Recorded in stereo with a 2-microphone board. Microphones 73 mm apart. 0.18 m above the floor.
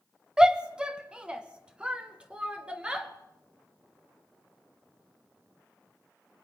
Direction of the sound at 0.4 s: 10° right (ahead or behind).